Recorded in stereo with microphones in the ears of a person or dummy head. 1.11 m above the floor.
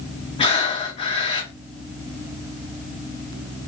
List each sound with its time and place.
0.4 s breathing: 30° left (ahead or behind), 0.6 m